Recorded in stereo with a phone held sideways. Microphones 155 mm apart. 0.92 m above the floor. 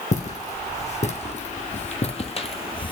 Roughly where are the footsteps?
Left.